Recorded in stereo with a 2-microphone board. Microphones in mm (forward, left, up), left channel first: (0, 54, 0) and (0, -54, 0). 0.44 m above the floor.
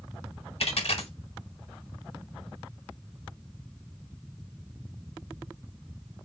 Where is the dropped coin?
70° left (ahead or behind), 1.2 m.